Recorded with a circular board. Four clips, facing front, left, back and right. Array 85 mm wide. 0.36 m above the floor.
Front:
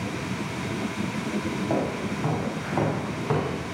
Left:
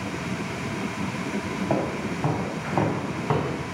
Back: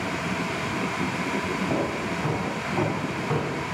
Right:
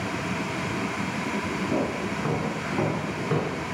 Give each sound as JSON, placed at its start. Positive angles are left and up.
{"t": 1.7, "sound": "footsteps", "azimuth_deg": 65, "distance_m": 6.5}